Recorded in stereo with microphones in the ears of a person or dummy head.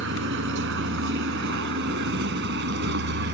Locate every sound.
0.0 s a vehicle: 65° right (ahead or behind); by 3.3 s 55° right (ahead or behind)